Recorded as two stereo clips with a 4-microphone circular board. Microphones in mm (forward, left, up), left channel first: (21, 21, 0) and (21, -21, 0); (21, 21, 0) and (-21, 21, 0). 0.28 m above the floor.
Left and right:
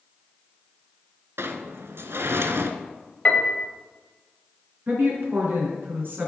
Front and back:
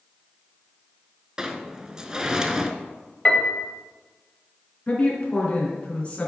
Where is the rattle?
No rattle in this recording.